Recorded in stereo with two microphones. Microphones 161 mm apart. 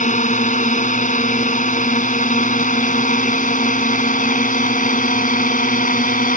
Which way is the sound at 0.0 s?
50° left (ahead or behind).